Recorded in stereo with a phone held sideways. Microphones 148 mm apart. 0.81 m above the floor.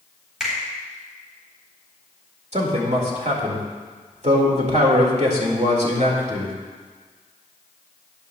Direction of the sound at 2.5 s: 50° right (ahead or behind).